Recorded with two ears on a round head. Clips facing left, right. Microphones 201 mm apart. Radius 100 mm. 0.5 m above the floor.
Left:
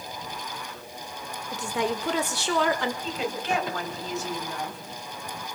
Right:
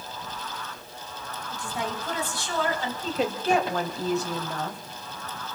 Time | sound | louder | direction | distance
1.5 | a woman speaking | left 5 dB | 55° left (ahead or behind) | 1.9 m
3.0 | a woman speaking | right 4 dB | 30° right (ahead or behind) | 3 m